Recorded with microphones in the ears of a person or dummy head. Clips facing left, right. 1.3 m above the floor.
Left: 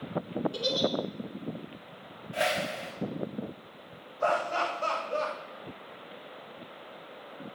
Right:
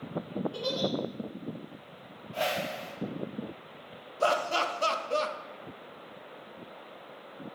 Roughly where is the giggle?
Left.